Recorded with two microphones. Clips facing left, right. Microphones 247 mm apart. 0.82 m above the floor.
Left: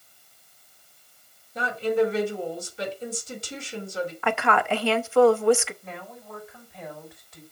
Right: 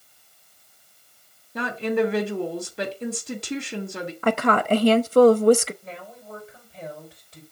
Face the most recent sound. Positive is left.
turn(degrees=-35)  # may be behind; listen again after turning